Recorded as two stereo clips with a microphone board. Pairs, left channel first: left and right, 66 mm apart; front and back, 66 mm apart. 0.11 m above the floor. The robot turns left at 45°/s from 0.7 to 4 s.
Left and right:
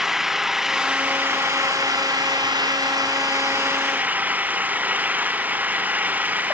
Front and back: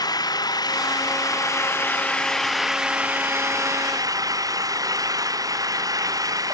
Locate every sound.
0.0 s an engine running: 5° right; by 6.5 s 155° right